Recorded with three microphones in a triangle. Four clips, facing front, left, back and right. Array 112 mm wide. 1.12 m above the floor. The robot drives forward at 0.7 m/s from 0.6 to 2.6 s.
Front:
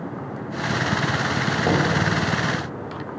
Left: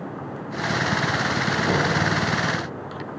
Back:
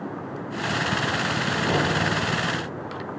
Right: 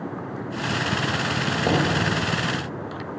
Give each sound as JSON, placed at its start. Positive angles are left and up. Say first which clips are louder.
{"t": 1.6, "sound": "knocking", "louder": "right 2 dB, front 3 dB", "azimuth_deg": -45, "distance_m": 3.5}